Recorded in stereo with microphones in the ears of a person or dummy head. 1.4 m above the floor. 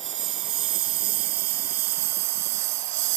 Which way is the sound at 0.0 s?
35° right (ahead or behind).